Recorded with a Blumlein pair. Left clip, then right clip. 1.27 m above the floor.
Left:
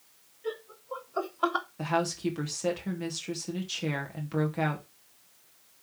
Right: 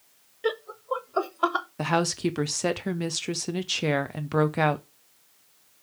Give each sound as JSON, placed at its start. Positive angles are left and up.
{"t": 0.4, "sound": "laughter", "azimuth_deg": -50, "distance_m": 0.8}
{"t": 1.8, "sound": "a woman speaking", "azimuth_deg": -65, "distance_m": 0.9}